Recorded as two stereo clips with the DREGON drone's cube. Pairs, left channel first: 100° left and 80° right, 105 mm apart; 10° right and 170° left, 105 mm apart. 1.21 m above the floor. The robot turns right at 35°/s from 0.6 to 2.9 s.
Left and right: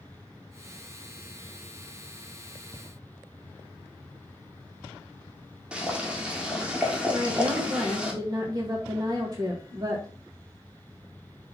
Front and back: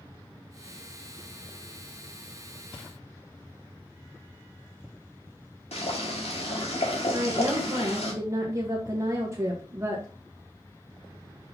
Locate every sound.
5.7 s boiling: straight ahead, 2.0 m
7.1 s a woman speaking: 130° right, 1.4 m